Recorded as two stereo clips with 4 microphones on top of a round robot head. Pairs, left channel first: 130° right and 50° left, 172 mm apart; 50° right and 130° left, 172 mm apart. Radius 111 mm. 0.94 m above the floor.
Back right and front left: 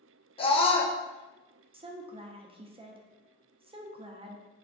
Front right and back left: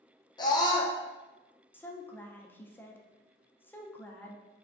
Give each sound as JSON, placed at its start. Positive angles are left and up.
{"t": 0.4, "sound": "a scream", "azimuth_deg": -100, "distance_m": 0.6}
{"t": 1.7, "sound": "a woman speaking", "azimuth_deg": 25, "distance_m": 0.6}